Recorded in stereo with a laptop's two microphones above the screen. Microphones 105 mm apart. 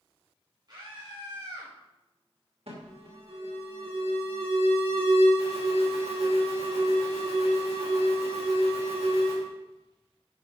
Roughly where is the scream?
Right.